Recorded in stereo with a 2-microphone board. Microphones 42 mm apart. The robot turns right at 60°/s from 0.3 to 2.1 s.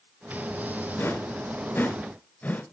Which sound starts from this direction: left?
A whoosh, at 1.0 s.